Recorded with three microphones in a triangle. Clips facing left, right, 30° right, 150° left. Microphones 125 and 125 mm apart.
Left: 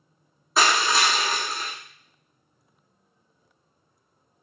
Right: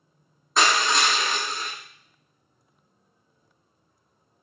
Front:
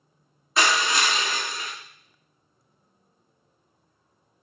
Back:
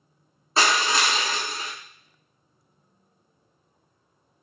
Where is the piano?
No piano in this recording.